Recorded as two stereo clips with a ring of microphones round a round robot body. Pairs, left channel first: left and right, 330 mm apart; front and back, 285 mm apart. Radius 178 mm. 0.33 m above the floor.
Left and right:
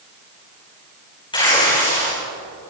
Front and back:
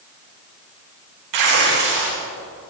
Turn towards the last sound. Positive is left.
turn(degrees=165)